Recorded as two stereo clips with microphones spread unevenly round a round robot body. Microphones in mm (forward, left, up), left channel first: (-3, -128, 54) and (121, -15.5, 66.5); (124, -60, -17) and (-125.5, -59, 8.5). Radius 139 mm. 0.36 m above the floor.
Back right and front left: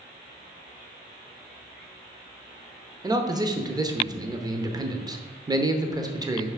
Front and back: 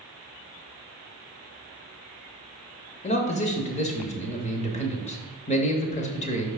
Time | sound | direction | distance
3.0 | a man speaking | 15° right | 0.9 m